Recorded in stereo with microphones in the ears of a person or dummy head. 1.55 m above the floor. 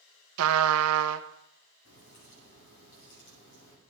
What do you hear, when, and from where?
0.4 s a trumpet: 85° right, 0.7 m
1.9 s a crack: 65° left (ahead or behind), 6.5 m